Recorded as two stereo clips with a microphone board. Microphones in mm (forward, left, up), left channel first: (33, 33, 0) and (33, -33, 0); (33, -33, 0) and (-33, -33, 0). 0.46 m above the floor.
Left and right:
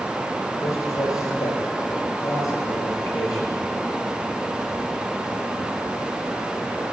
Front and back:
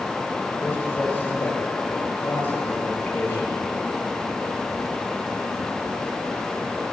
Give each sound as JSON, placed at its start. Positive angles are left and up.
{"t": 0.6, "sound": "a man speaking", "azimuth_deg": 60, "distance_m": 8.0}